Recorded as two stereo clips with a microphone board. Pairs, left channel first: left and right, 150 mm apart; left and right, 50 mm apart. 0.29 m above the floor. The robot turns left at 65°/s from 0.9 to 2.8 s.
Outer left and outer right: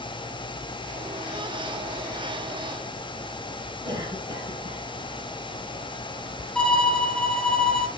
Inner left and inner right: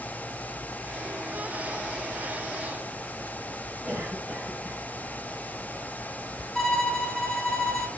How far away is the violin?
About 2.5 m.